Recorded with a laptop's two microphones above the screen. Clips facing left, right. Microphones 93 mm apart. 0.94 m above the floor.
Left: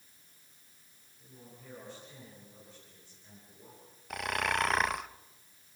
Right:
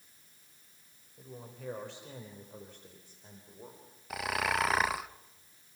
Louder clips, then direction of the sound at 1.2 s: Right 7 dB; 85° right.